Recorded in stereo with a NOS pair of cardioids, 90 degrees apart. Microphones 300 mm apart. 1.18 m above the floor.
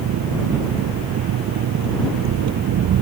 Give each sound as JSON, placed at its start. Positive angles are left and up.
{"t": 0.0, "sound": "an engine running", "azimuth_deg": -65}